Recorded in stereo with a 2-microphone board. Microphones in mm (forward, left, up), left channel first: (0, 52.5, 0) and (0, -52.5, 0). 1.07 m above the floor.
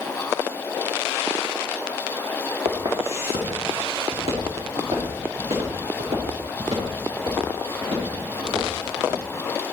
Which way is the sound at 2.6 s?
55° right (ahead or behind).